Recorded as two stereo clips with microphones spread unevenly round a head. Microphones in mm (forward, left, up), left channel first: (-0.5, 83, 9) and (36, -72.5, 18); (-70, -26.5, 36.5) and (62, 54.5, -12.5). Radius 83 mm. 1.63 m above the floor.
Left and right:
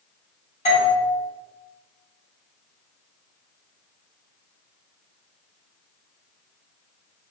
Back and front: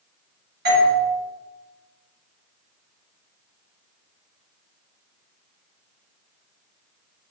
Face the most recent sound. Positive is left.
turn(degrees=50)